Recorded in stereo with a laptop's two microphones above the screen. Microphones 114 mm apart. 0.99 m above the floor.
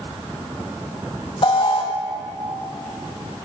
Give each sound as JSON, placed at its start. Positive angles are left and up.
{"t": 1.4, "sound": "an alarm", "side_deg": 50, "distance_m": 1.3}